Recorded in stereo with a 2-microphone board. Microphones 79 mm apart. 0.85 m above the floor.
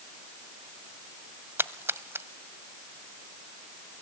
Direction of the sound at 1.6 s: 30° right (ahead or behind).